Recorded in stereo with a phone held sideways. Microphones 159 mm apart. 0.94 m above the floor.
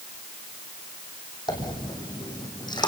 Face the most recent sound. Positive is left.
turn(degrees=30)  # may be behind; listen again after turning